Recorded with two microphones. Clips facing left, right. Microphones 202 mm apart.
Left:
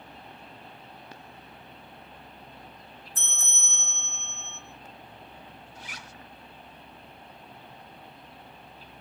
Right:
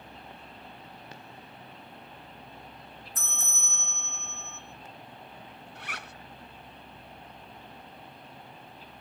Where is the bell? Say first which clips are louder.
Right 1 dB; 30° left (ahead or behind), 3 m.